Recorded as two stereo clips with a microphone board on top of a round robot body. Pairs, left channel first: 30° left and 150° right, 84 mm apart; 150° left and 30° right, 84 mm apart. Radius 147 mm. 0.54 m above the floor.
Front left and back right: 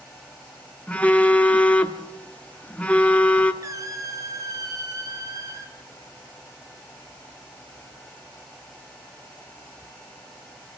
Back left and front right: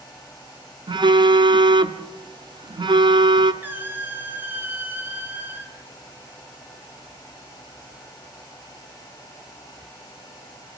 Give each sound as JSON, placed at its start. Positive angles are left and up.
{"t": 0.9, "sound": "a phone buzzing", "azimuth_deg": -45, "distance_m": 1.3}
{"t": 3.6, "sound": "a squeak", "azimuth_deg": -100, "distance_m": 2.0}